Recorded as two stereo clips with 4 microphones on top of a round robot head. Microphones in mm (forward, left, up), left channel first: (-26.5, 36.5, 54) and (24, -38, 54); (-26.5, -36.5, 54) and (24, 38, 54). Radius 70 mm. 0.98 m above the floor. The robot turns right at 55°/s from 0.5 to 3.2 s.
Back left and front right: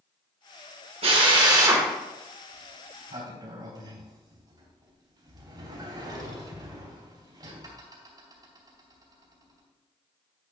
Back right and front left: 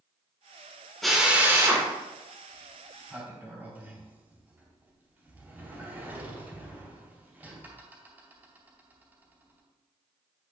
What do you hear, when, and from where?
1.0 s a drill: 35° right, 1.6 m; by 1.9 s 10° left, 1.6 m
2.5 s a sliding door: 55° right, 3 m; by 9.6 s 15° right, 3 m